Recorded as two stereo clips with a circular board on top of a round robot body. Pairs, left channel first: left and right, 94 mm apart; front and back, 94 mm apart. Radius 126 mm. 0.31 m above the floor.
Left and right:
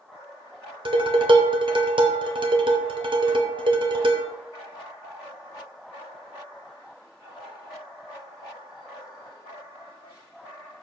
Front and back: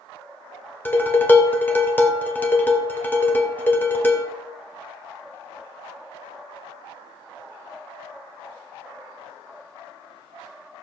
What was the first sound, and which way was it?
Dishes clattering, 70° right.